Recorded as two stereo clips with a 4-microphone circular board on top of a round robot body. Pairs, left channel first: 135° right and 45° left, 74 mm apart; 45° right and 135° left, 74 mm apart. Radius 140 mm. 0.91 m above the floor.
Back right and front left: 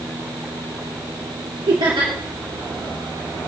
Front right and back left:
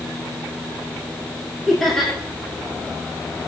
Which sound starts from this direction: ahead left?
Laughter, at 1.7 s.